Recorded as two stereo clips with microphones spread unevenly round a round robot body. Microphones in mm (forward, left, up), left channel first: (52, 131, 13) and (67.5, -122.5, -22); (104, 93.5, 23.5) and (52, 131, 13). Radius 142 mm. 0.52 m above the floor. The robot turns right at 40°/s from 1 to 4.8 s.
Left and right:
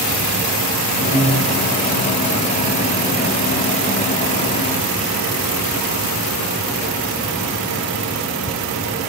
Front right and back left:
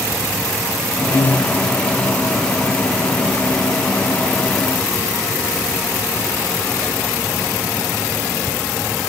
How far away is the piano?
About 1.0 m.